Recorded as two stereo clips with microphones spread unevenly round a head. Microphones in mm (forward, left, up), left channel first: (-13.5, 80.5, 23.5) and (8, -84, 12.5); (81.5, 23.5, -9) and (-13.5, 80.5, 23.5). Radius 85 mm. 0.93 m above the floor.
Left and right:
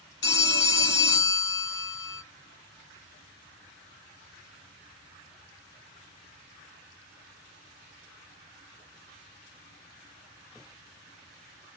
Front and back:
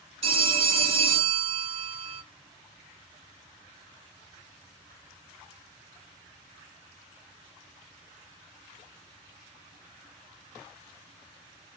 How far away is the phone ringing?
About 1.2 m.